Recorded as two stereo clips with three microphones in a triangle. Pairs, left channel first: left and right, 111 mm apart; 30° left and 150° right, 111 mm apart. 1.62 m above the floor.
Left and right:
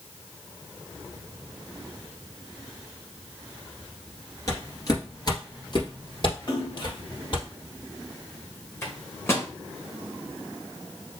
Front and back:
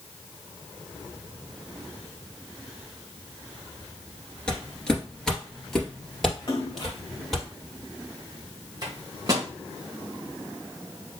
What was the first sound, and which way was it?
Footsteps, 105° left.